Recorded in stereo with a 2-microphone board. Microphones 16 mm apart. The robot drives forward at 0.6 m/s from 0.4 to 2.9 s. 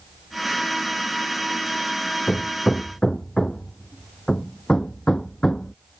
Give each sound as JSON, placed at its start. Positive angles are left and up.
{"t": 2.3, "sound": "hammering", "side_deg": 50}